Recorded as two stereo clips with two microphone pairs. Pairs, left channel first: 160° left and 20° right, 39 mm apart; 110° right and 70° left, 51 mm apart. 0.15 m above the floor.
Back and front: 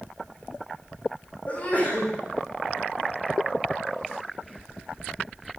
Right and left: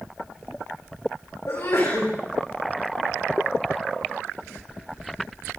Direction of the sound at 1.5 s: 145° right.